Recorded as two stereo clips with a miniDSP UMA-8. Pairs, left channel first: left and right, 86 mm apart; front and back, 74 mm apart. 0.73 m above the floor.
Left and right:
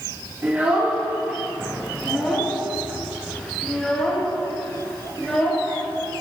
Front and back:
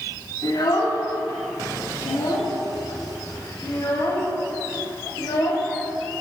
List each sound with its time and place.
0.4 s a child speaking: 25° right, 4 m; by 6.2 s 30° left, 5 m